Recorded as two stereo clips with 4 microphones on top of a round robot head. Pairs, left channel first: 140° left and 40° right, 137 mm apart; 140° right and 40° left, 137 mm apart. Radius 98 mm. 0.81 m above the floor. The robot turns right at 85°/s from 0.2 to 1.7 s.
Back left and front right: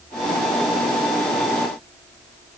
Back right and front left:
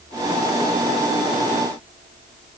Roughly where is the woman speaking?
No woman speaking in this recording.